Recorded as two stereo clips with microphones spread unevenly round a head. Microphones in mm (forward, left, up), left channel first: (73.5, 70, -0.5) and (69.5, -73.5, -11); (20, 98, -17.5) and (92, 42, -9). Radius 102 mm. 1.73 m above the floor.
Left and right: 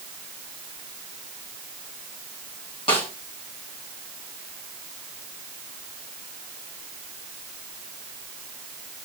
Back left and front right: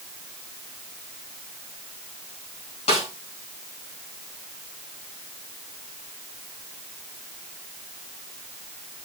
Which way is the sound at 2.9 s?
155° left.